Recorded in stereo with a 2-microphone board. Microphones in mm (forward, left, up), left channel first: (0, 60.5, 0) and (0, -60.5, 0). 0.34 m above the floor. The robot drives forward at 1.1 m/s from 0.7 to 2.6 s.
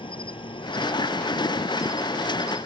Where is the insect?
45° left (ahead or behind); by 2.7 s 25° left (ahead or behind).